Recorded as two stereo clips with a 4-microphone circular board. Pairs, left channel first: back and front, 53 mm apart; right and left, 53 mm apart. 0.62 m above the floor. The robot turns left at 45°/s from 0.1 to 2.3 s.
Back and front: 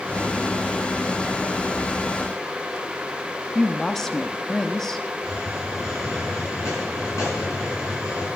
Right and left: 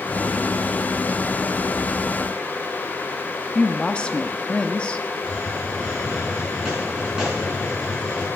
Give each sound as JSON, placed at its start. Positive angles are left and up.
{"t": 3.5, "sound": "a woman speaking", "azimuth_deg": -115, "distance_m": 0.6}
{"t": 5.2, "sound": "a hiss", "azimuth_deg": 165, "distance_m": 6.5}